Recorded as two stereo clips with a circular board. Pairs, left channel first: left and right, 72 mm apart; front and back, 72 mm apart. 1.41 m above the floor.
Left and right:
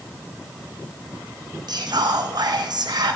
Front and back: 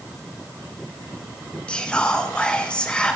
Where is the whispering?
75° right, 1.2 m.